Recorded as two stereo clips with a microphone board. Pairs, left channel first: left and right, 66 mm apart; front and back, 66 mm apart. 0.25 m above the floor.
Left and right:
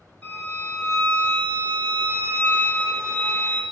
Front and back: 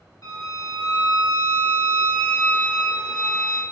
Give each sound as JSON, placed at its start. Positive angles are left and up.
{"t": 0.2, "sound": "a violin", "azimuth_deg": 20, "distance_m": 3.5}